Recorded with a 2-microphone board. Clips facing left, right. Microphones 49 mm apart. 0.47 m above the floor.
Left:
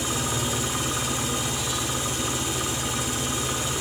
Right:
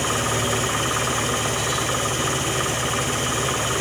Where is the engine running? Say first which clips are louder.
Right 5 dB; 60° right (ahead or behind), 0.8 m.